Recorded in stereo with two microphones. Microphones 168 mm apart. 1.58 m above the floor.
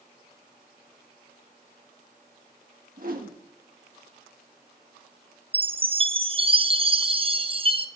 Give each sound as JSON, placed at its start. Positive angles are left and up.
{"t": 3.0, "sound": "a whoosh", "side_deg": -60, "distance_m": 1.6}
{"t": 5.5, "sound": "a chime", "side_deg": -35, "distance_m": 0.7}